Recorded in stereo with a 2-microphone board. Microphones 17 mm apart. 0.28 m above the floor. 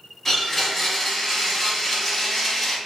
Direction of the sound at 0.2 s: 20° left (ahead or behind).